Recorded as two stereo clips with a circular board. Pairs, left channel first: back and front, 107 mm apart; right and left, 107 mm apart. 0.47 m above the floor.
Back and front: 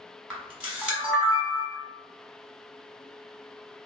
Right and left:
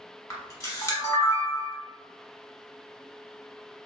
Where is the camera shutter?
70° right, 1.1 m.